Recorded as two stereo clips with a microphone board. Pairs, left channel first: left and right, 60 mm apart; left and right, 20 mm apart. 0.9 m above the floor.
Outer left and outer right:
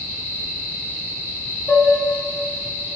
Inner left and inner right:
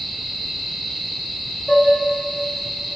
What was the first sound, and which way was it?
Dishes clattering, 25° left (ahead or behind).